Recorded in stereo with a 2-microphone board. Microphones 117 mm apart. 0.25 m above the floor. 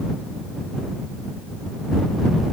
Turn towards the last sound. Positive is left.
No sound to turn to.